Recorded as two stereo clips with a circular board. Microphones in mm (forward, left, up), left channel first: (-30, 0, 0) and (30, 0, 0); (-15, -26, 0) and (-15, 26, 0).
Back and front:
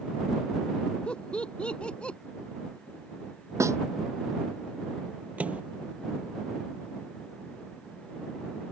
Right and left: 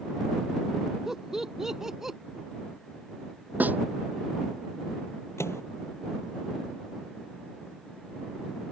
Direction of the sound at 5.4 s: 65° right.